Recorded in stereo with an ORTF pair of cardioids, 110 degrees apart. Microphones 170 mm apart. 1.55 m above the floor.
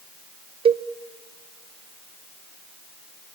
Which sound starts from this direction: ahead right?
A cowbell, at 0.7 s.